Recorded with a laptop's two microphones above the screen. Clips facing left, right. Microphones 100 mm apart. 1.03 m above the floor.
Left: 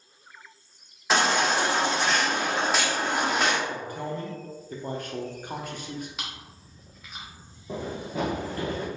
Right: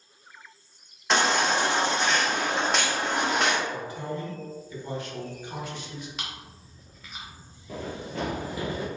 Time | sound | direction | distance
1.1 | a baby crying | 5° left (ahead or behind) | 1.1 m
3.7 | a man speaking | 45° left (ahead or behind) | 0.9 m
6.2 | chewing | 5° left (ahead or behind) | 0.9 m
7.7 | running footsteps | 25° left (ahead or behind) | 1.2 m